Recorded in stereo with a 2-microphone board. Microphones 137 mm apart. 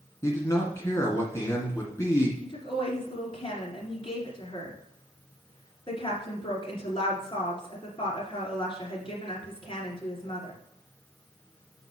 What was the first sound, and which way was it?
A man speaking, 20° left (ahead or behind).